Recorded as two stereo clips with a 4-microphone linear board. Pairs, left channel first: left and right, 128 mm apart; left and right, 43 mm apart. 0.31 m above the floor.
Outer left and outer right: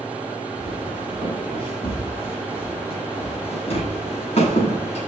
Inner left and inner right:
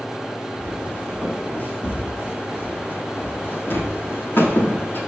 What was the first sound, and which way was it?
Footsteps, 40° left (ahead or behind).